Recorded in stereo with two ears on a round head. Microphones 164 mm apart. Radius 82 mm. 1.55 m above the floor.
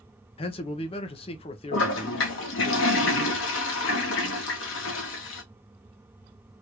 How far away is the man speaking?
About 0.6 m.